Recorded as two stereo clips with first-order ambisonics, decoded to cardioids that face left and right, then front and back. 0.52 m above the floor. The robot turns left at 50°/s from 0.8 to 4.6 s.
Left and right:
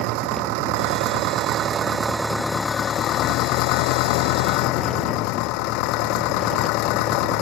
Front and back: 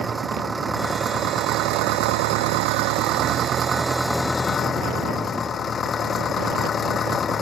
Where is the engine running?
100° right; by 7.4 s 70° left.